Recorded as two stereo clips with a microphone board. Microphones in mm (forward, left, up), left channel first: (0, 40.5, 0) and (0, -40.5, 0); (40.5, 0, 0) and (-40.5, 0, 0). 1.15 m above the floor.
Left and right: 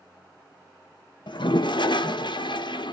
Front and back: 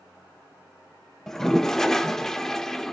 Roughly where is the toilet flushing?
Left.